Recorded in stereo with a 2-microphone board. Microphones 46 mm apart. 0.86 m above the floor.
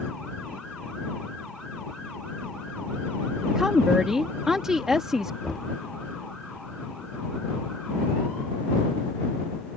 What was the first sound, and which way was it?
A woman speaking, 10° right (ahead or behind).